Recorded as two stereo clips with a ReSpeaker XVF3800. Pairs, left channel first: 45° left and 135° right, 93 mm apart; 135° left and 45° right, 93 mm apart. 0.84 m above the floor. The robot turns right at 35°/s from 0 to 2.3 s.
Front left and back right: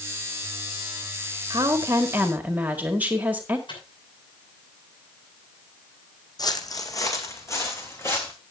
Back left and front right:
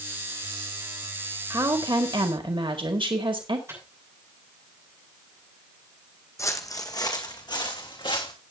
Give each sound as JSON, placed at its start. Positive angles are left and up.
{"t": 1.5, "sound": "a woman speaking", "azimuth_deg": -90, "distance_m": 1.7}
{"t": 3.7, "sound": "a microwave", "azimuth_deg": 15, "distance_m": 6.5}
{"t": 6.4, "sound": "footsteps", "azimuth_deg": 85, "distance_m": 1.6}